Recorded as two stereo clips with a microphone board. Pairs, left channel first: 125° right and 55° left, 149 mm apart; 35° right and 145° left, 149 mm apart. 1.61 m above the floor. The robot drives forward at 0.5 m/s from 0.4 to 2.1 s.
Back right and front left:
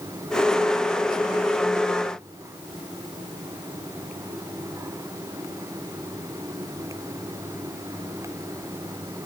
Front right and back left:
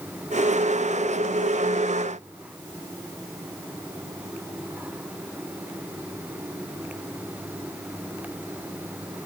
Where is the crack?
I don't hear a crack.